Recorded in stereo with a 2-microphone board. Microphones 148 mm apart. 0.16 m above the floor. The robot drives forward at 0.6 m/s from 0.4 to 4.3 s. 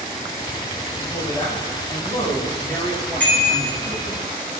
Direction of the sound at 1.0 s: 20° left (ahead or behind).